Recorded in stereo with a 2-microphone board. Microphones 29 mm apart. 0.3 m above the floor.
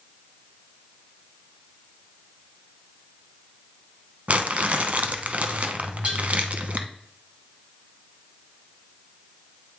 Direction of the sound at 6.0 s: 55° right (ahead or behind).